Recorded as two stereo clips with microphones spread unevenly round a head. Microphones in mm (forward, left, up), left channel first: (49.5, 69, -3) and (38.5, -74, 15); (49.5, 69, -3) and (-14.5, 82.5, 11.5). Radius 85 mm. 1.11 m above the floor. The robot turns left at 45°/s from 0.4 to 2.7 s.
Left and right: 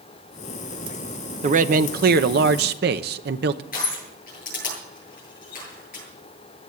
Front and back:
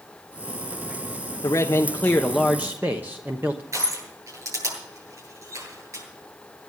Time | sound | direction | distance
1.4 | a man speaking | 55° right | 0.9 m
3.7 | crushing | 135° left | 9 m